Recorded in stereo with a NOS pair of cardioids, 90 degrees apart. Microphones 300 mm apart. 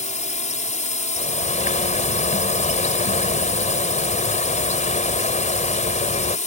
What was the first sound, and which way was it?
A drone, 25° left.